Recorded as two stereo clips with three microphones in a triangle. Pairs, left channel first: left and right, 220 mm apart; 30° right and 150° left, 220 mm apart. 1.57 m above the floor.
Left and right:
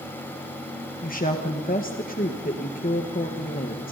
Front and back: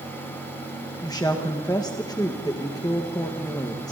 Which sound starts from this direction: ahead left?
A woman speaking, at 1.0 s.